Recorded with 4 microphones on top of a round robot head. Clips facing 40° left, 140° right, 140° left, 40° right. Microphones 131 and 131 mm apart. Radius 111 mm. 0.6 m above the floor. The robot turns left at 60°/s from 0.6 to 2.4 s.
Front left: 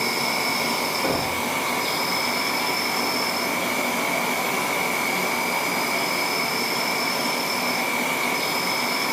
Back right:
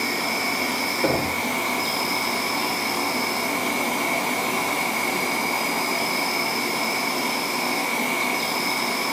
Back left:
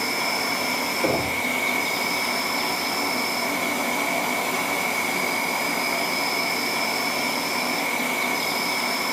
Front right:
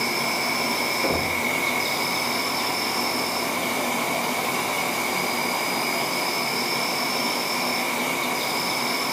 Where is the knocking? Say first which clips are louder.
Back right 4 dB, back left 3 dB; 150° right, 1.4 m; by 1.4 s 170° right, 1.4 m.